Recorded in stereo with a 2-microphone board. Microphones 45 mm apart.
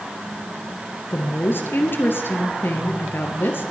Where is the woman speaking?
55° left (ahead or behind), 2 m.